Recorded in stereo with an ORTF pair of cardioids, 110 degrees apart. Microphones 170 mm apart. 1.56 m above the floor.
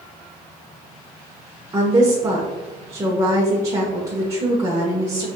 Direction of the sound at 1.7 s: 20° right.